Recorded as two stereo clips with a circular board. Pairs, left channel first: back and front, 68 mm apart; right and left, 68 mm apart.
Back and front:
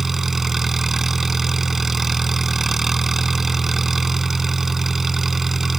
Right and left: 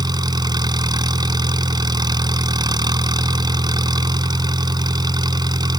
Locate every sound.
0.0 s an engine running: 85° left